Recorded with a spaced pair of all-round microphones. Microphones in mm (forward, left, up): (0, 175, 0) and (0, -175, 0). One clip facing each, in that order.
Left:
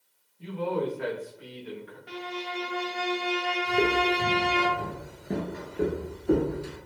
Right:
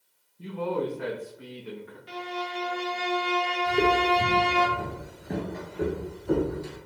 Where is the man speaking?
55° right (ahead or behind), 1.0 m.